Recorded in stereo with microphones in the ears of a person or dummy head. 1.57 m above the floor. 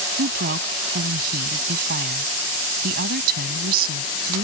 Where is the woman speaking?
50° right (ahead or behind).